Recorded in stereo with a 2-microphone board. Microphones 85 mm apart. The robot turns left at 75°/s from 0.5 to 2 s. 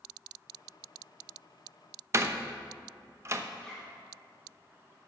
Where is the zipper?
5° left (ahead or behind), 2.5 m.